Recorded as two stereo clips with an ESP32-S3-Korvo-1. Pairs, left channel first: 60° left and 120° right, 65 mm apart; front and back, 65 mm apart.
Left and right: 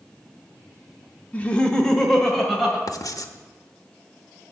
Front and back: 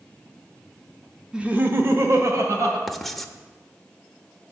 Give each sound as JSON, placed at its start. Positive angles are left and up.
{"t": 1.3, "sound": "laughter", "azimuth_deg": 110, "distance_m": 0.7}
{"t": 2.9, "sound": "writing", "azimuth_deg": 85, "distance_m": 0.6}